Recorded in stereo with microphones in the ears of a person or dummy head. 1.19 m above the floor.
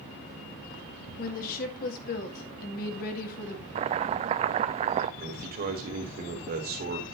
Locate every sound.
1.2 s a woman speaking: 45° left (ahead or behind), 2 m
3.8 s chopping: 35° right (ahead or behind), 0.6 m
5.2 s a man speaking: 50° right (ahead or behind), 2.5 m